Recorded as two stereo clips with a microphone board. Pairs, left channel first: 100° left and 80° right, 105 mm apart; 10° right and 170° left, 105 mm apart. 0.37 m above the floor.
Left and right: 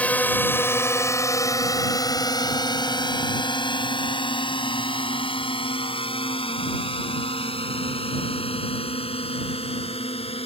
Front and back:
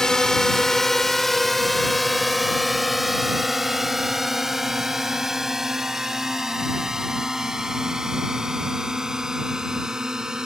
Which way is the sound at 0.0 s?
60° left.